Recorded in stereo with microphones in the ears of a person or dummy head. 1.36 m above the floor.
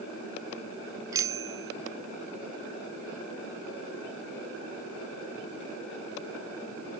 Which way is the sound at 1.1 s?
20° right (ahead or behind).